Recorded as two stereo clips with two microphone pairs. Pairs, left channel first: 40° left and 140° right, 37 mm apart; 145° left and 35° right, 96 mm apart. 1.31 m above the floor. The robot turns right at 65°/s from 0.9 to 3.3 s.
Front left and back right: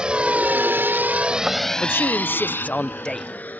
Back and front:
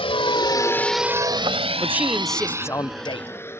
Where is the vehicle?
155° left; by 3.6 s 80° left.